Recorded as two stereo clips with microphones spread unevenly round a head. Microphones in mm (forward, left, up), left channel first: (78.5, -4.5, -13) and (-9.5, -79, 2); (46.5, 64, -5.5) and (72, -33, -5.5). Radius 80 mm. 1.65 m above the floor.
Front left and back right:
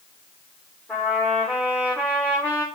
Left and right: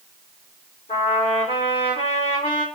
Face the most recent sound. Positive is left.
turn(degrees=120)